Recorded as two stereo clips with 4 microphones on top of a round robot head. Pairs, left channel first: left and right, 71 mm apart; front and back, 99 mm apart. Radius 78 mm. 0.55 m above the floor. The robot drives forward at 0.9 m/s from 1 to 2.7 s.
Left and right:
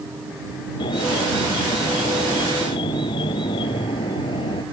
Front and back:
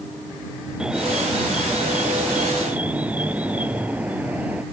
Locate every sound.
0.8 s an alarm: 100° left; by 4.6 s 105° left